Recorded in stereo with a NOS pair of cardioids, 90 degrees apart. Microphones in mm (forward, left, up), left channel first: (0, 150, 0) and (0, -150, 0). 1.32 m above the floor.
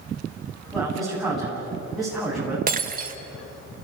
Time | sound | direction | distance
0.7 | a man speaking | straight ahead | 8.5 m
2.7 | breaking glass | 30° right | 2.5 m